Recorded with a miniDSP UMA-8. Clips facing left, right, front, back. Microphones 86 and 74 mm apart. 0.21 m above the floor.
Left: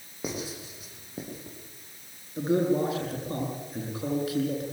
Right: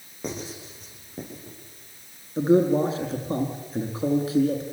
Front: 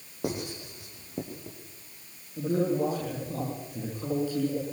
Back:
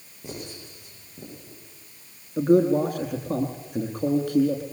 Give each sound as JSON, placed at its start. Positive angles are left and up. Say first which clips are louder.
{"t": 0.2, "sound": "writing", "louder": "right 1 dB, front 5 dB", "azimuth_deg": 5, "distance_m": 10.0}
{"t": 2.4, "sound": "a man speaking", "louder": "right 5 dB, back 8 dB", "azimuth_deg": -155, "distance_m": 8.5}